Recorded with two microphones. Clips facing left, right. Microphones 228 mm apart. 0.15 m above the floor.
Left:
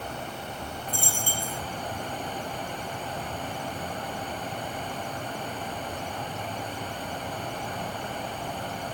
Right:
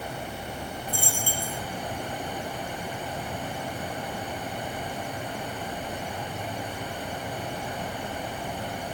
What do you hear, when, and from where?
0.9 s a dropped coin: 20° left (ahead or behind), 2.5 m